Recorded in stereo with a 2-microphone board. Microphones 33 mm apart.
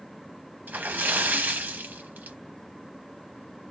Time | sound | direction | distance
0.7 | a splash | 60° right (ahead or behind) | 0.7 m